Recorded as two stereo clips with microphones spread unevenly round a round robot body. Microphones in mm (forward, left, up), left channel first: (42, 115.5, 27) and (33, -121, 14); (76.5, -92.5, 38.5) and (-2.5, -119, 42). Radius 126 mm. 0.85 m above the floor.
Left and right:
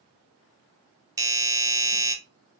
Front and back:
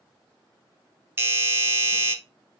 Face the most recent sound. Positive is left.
turn(degrees=-140)